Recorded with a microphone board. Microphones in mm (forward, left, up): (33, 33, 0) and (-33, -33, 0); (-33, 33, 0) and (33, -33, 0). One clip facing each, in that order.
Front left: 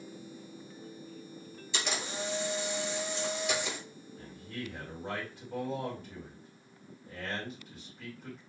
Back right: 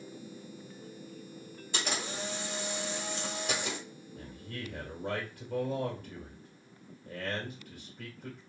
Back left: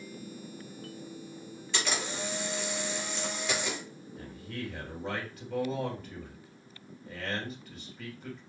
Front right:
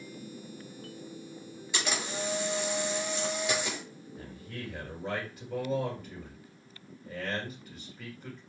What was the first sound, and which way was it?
A camera shutter, 120° right.